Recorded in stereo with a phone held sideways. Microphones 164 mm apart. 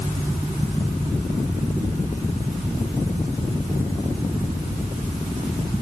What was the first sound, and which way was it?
Only background noise.